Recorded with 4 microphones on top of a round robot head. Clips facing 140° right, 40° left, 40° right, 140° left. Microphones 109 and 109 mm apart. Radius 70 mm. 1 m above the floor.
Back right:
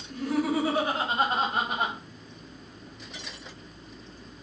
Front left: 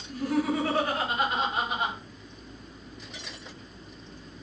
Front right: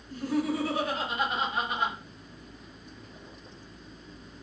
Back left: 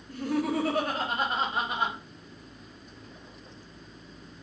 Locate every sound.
0.1 s laughter: 120° left, 1.0 m; by 1.9 s 145° right, 0.8 m